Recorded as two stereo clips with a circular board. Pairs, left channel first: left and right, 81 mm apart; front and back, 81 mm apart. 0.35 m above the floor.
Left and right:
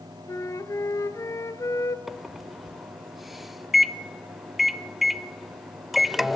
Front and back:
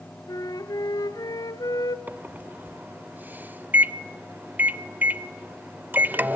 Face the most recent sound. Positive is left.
turn(degrees=-175)